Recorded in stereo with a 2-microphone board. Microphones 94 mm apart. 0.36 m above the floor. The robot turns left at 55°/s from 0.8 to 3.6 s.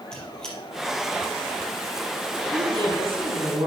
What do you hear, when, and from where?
0.1 s a squeak: 10° left (ahead or behind), 3.5 m
2.5 s a woman speaking: 55° right, 2.5 m; by 3.7 s 115° right, 2.5 m